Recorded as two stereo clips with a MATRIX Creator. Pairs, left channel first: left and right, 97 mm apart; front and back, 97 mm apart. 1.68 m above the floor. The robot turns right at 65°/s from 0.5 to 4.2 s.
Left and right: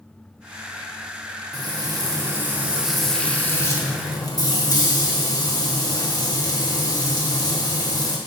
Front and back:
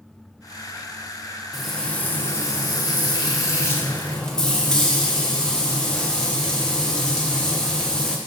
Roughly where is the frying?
Right.